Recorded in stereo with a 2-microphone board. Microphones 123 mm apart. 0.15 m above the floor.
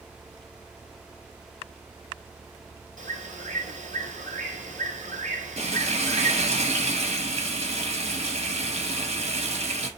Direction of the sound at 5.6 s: 55° right (ahead or behind).